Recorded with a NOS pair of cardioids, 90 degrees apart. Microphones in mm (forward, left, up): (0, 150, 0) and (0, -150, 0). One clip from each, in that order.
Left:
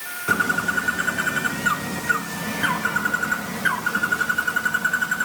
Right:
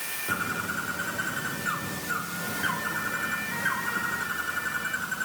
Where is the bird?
65° left, 2.5 m.